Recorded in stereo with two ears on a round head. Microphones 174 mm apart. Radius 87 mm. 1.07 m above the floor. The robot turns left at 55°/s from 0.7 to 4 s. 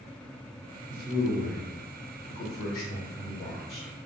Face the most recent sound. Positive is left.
turn(degrees=5)  # may be behind; listen again after turning